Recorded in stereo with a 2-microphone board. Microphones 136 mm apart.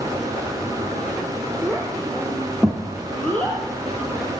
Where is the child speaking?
5° left (ahead or behind), 6 m; by 3.6 s 10° left (ahead or behind), 4.5 m.